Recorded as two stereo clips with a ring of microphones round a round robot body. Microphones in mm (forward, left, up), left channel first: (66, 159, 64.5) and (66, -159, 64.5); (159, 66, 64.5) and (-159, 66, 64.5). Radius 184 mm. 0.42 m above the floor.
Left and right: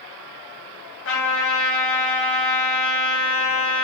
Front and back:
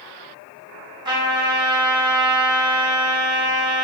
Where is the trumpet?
110° left, 1.2 m.